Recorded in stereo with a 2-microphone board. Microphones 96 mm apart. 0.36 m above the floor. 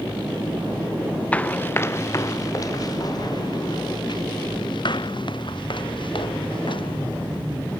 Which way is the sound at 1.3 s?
15° left (ahead or behind).